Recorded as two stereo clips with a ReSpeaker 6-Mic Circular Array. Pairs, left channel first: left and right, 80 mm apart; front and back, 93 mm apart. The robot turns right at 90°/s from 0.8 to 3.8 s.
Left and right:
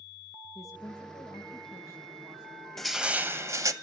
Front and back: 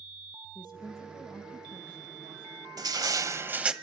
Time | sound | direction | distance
0.6 | a woman speaking | 40° left | 7.5 m
2.8 | crushing | 170° left | 1.1 m